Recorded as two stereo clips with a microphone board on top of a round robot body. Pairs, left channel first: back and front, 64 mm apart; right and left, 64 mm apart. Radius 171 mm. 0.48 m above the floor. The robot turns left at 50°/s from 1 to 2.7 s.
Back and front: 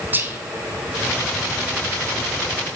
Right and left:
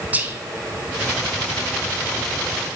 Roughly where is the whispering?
Ahead left.